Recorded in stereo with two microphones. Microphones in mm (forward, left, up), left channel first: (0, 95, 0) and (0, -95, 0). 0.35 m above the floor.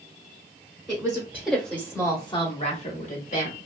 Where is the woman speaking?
20° right (ahead or behind), 1.0 m; by 3.6 s 50° left (ahead or behind), 1.3 m.